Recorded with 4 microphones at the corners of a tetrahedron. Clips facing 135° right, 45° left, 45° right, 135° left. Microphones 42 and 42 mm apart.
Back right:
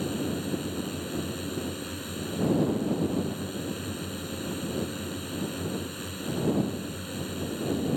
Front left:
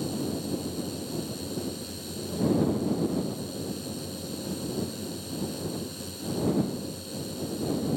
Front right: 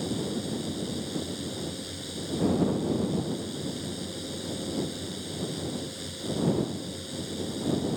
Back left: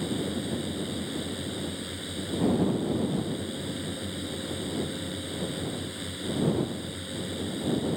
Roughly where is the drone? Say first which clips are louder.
Back right 1 dB, back left 1 dB; behind.